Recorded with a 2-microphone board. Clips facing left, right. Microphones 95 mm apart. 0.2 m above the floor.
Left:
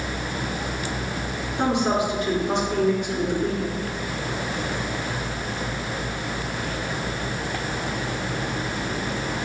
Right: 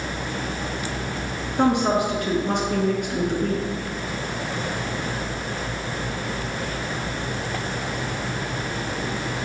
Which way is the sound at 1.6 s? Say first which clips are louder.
Right 2 dB; 60° right (ahead or behind).